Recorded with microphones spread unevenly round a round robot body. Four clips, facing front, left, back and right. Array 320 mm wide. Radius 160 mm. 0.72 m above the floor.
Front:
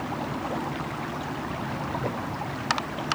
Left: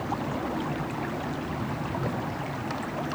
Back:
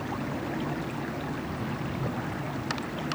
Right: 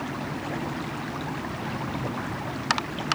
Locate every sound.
Only background noise.